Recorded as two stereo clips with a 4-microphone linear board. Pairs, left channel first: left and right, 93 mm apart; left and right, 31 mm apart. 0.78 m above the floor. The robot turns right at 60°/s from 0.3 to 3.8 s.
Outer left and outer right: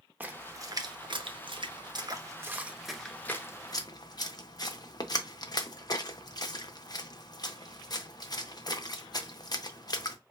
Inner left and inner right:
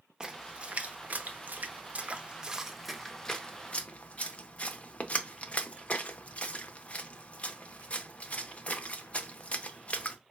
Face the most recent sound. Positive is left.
turn(degrees=45)  # may be behind; listen again after turning